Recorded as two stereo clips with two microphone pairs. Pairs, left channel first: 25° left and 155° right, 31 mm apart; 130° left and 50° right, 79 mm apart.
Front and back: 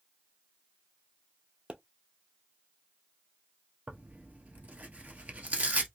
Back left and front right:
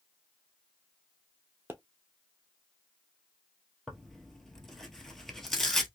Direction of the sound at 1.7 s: 110° right.